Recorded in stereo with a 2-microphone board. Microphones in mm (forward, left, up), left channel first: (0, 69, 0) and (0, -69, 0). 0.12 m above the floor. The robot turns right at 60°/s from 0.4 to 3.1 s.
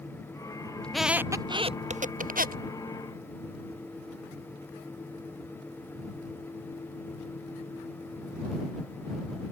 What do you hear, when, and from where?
0.8 s a squeak: 5° left (ahead or behind); by 2.6 s 80° right